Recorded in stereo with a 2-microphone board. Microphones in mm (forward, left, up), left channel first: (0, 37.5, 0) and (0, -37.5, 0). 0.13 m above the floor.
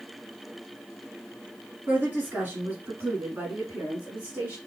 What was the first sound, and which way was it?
A woman speaking, 25° right (ahead or behind).